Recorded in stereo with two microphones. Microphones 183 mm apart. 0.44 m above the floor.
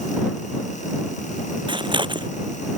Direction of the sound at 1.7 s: 25° right (ahead or behind).